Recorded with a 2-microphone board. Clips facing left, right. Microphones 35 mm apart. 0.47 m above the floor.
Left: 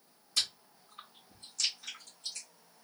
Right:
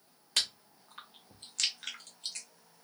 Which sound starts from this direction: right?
Chewing, at 0.4 s.